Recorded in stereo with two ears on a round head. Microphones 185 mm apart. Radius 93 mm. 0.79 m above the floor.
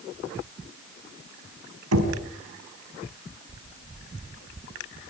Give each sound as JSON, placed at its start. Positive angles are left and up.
{"t": 1.9, "sound": "knocking", "side_deg": -85, "distance_m": 5.0}